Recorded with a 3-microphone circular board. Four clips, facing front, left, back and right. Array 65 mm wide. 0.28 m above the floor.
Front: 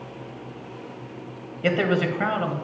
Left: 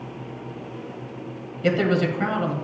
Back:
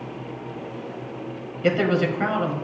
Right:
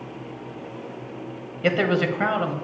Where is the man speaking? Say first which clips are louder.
Even, back 1 dB; 70° right, 1.0 m.